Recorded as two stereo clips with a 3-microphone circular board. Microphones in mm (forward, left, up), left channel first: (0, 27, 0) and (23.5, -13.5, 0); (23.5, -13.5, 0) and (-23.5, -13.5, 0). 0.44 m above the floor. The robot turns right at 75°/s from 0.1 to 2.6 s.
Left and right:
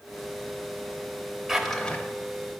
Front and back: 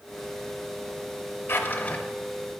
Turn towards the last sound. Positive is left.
turn(degrees=105)